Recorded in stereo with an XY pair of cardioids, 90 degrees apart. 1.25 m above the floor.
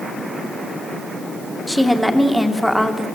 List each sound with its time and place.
1.7 s a woman speaking: straight ahead, 2.5 m